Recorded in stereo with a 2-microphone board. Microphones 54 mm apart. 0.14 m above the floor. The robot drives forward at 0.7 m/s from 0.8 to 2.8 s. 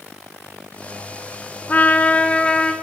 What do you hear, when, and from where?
1.7 s a trumpet: 35° left (ahead or behind), 0.5 m; by 2.7 s 15° left (ahead or behind), 1.0 m